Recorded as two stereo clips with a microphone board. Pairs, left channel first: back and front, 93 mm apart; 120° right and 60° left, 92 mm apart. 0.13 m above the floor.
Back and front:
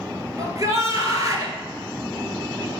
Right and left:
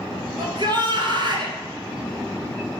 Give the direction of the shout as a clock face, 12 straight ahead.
10 o'clock.